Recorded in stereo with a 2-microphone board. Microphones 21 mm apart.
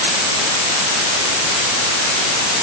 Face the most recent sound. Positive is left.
No sound to turn to.